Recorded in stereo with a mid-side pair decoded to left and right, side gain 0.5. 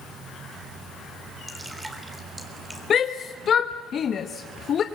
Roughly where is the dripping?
Ahead.